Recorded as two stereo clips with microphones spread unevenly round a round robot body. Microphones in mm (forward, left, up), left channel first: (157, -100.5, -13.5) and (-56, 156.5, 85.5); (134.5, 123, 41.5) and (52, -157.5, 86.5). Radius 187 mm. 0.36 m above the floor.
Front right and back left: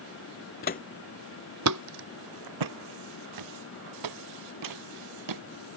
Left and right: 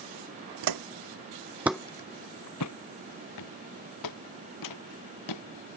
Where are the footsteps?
120° right; by 5.4 s 100° left.